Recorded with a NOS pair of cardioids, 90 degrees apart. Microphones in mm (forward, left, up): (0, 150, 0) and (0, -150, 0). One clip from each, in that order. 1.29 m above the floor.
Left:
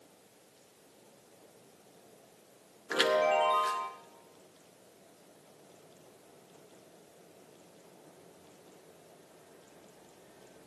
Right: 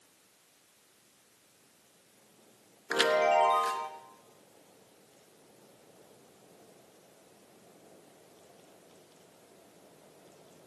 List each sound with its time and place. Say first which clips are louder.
2.9 s a chime: right 2 dB; 10° right, 1.0 m